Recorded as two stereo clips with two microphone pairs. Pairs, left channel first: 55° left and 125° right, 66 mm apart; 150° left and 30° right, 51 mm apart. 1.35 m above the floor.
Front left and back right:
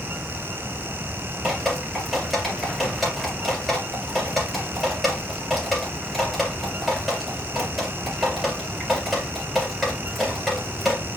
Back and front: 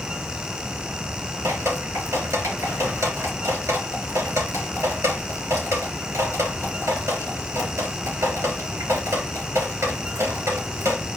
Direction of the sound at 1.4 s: 40° right.